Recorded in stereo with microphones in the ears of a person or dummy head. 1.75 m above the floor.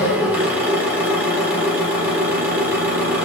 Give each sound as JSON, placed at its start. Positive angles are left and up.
{"t": 0.0, "sound": "an engine running", "side_deg": -5, "distance_m": 1.7}